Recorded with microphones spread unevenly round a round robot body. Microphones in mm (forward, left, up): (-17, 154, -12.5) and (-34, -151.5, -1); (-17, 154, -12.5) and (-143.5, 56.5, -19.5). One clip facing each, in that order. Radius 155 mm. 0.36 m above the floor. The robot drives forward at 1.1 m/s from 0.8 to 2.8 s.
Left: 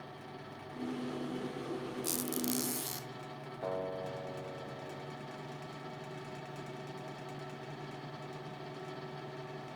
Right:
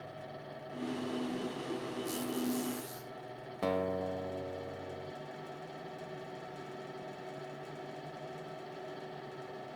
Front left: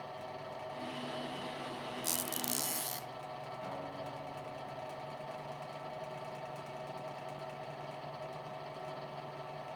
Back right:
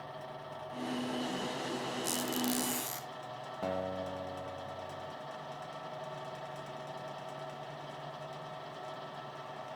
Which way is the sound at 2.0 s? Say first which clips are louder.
Right 2 dB, back right 7 dB; 65° left.